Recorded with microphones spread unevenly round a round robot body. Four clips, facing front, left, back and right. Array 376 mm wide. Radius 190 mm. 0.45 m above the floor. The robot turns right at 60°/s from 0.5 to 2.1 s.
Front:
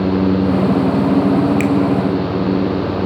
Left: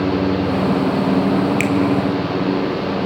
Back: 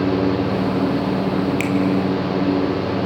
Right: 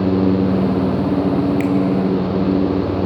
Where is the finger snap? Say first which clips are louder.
Right 1 dB, front 6 dB; 20° left, 2 m; by 1.7 s 30° left, 2 m.